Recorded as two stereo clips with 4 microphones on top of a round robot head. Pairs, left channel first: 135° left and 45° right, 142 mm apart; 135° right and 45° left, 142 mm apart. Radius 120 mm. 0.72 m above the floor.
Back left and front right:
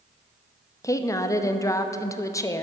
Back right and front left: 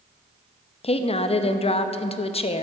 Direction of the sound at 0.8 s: 165° right.